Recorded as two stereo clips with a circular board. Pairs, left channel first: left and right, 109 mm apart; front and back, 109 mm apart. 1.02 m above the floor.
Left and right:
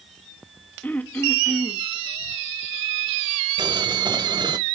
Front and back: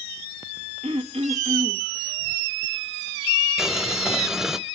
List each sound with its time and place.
0.8 s throat clearing: 165° left, 1.7 m
3.6 s boiling: 95° right, 0.9 m